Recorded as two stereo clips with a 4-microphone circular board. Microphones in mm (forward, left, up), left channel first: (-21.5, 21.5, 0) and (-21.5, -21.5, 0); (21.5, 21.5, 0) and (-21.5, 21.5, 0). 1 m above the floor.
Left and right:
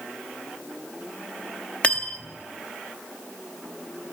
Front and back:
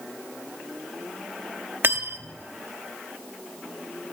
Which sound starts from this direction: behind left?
Cutlery clinking, at 1.8 s.